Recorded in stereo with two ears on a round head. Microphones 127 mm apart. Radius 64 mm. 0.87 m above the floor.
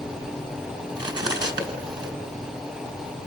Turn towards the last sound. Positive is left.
turn(degrees=-30)  # may be behind; listen again after turning